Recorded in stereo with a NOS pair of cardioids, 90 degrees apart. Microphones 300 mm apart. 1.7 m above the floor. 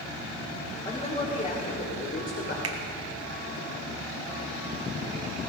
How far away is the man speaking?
About 3.5 m.